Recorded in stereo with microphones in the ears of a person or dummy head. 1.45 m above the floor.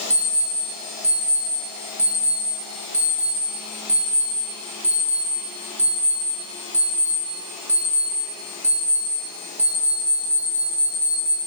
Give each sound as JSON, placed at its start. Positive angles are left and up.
{"t": 0.1, "sound": "an alarm clock", "side_deg": -10, "distance_m": 1.6}